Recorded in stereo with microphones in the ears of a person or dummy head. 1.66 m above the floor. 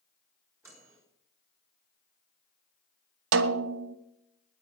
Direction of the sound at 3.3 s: 75° right (ahead or behind).